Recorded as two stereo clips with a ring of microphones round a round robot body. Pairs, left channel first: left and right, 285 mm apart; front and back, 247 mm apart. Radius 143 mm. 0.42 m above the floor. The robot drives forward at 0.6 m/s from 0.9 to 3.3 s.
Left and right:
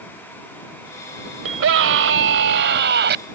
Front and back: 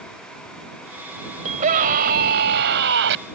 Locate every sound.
1.4 s a scream: 120° right; by 3.2 s 140° right